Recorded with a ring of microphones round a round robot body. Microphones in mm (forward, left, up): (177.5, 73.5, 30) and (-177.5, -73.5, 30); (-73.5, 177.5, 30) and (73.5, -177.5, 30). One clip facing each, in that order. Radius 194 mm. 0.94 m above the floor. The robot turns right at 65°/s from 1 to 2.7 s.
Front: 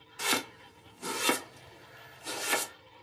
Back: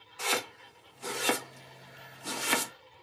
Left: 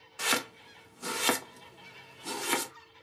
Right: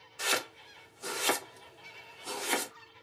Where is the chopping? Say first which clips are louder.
Even, left 2 dB; 85° left, 1.3 m; by 2.7 s 165° right, 1.3 m.